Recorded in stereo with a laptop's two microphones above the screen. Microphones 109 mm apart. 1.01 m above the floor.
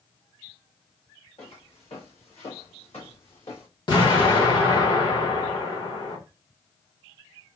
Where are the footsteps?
65° left (ahead or behind), 2.5 m; by 3.7 s 60° left (ahead or behind), 2.5 m.